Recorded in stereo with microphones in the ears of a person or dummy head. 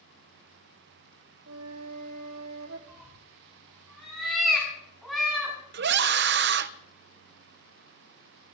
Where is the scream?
60° right (ahead or behind), 0.9 m.